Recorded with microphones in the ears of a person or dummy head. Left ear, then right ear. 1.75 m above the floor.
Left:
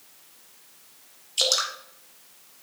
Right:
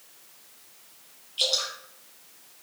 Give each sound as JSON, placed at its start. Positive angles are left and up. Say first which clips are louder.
{"t": 1.4, "sound": "dripping", "louder": "left 2 dB", "side_deg": 55, "distance_m": 1.9}